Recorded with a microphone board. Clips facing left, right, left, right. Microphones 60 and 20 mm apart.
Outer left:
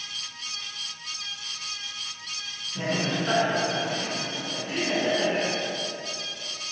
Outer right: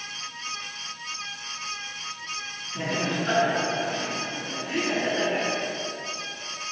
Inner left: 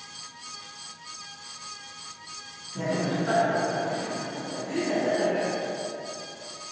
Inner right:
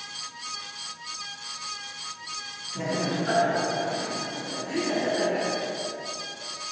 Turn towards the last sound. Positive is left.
turn(degrees=-25)  # may be behind; listen again after turning